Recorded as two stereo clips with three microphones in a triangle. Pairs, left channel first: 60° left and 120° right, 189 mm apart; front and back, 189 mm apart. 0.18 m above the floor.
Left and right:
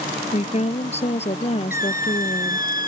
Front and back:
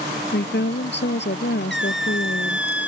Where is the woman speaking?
5° left.